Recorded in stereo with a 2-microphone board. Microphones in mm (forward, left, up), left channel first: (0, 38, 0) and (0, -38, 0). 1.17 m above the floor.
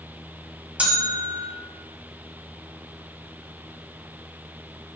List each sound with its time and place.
0.8 s a bell: 15° right (ahead or behind), 1.1 m